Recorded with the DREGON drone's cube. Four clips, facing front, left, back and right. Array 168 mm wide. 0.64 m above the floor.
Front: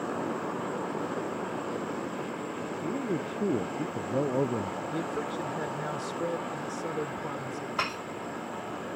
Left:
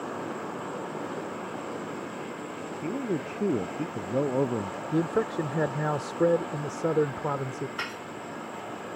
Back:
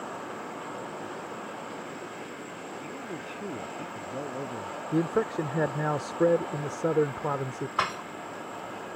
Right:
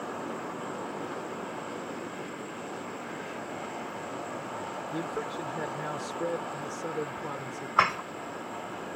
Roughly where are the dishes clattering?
Behind right.